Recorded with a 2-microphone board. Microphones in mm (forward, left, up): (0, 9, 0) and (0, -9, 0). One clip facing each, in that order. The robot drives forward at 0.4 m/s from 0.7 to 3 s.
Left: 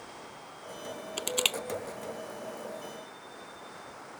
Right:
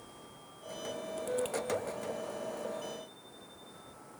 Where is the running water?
40° left (ahead or behind).